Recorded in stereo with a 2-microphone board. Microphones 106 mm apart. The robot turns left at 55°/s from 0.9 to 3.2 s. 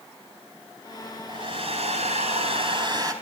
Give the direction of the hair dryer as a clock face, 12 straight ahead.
1 o'clock.